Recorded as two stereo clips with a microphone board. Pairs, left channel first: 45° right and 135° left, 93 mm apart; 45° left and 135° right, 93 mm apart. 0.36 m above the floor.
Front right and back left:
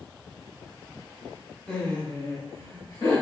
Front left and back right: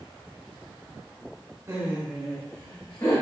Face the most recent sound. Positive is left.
turn(degrees=-5)